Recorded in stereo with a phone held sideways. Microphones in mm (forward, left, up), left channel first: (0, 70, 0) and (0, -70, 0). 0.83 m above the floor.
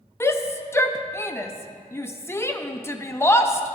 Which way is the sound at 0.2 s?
20° left (ahead or behind).